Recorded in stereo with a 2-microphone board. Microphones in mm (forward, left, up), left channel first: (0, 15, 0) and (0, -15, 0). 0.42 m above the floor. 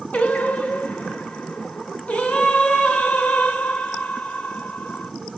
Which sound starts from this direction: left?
Singing, at 0.1 s.